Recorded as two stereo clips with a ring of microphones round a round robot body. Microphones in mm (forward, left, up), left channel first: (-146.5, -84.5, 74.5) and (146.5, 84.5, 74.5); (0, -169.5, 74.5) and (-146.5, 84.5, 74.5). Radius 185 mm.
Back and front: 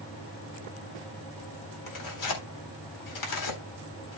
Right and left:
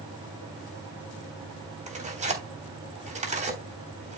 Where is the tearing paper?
175° right, 3.5 m.